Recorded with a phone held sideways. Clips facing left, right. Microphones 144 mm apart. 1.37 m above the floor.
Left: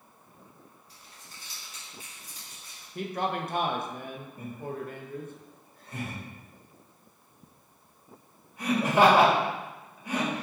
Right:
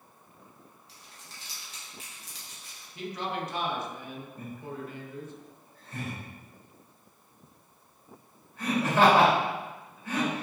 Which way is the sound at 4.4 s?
15° left (ahead or behind).